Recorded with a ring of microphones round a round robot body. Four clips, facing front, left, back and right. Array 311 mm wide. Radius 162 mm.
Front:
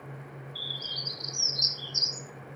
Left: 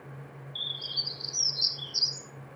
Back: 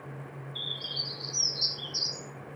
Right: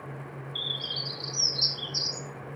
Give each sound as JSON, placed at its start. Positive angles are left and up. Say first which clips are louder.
{"t": 0.6, "sound": "a bird", "louder": "right 6 dB, back 1 dB", "azimuth_deg": -150, "distance_m": 4.5}